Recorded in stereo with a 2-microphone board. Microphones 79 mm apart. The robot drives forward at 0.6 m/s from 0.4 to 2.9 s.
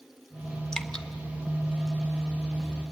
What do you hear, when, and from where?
0.7 s dripping: 10° left (ahead or behind), 1.1 m